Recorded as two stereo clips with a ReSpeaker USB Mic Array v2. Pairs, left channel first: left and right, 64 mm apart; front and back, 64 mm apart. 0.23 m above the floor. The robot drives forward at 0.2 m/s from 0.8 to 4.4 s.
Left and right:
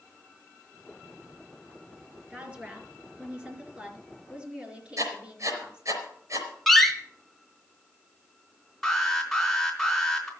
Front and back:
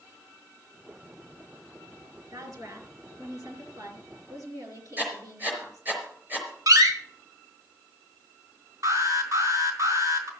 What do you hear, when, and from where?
2.3 s a woman speaking: 160° right, 3.5 m; by 6.0 s 165° right, 4 m
5.0 s writing: 120° right, 4.5 m
6.7 s a door slam: 175° left, 1.7 m
8.8 s an alarm: 175° left, 4 m